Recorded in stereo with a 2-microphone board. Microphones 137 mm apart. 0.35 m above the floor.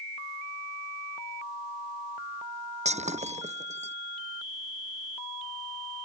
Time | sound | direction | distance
2.9 | breaking glass | 55° right (ahead or behind) | ?